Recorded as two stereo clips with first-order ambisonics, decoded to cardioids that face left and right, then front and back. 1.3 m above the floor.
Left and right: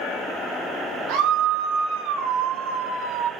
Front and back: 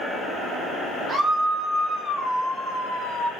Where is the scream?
110° right, 1.4 m; by 3.3 s 80° right, 2.5 m.